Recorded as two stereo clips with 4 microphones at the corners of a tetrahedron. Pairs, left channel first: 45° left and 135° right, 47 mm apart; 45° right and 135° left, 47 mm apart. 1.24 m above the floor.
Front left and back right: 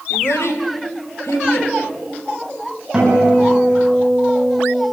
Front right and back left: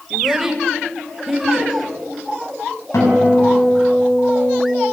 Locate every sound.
0.1 s a child speaking: 50° left, 2.5 m; by 1.7 s 55° left, 4.5 m
2.9 s a guitar: 55° right, 8.5 m